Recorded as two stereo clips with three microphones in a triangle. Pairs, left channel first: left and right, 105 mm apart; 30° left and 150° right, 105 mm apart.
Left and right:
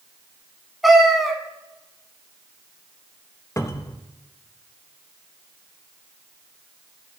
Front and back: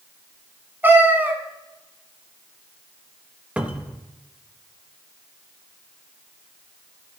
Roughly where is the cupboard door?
Behind left.